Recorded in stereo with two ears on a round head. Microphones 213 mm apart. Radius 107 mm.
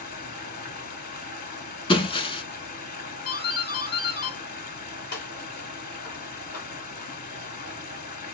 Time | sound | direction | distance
0.0 | running water | 40° left (ahead or behind) | 1.0 m
1.9 | breaking glass | 20° left (ahead or behind) | 0.6 m
3.2 | a doorbell | 40° left (ahead or behind) | 2.0 m